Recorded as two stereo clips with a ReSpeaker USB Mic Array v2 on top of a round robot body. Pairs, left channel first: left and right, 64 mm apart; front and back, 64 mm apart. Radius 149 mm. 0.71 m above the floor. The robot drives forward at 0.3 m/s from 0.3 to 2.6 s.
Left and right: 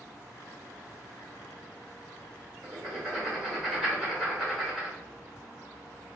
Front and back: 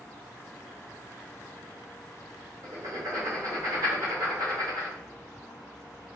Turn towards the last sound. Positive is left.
turn(degrees=-175)